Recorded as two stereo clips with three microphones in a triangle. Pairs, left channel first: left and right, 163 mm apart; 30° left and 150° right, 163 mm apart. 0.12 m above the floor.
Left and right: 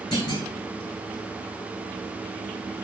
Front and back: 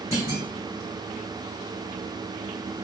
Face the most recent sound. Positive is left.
turn(degrees=145)